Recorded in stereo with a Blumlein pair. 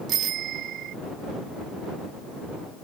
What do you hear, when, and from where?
0.1 s a bicycle bell: 35° right